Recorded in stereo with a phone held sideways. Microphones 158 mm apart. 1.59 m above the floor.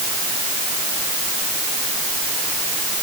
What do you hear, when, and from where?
Only background noise.